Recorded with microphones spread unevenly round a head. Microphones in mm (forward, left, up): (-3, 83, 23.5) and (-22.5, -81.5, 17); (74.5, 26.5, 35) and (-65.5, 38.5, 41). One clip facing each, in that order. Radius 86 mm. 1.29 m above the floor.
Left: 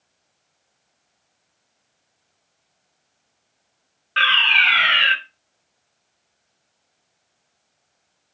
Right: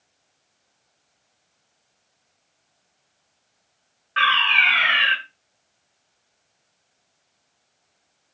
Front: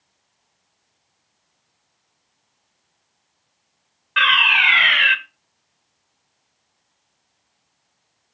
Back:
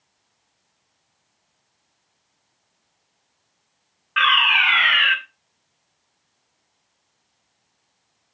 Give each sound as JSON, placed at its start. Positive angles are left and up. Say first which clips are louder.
{"t": 4.2, "sound": "a fire alarm", "louder": "right 1 dB, even", "azimuth_deg": 40, "distance_m": 1.5}